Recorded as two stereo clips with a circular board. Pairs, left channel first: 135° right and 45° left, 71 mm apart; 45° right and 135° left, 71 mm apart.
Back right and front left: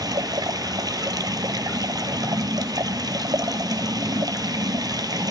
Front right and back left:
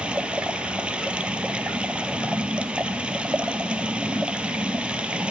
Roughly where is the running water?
Ahead left.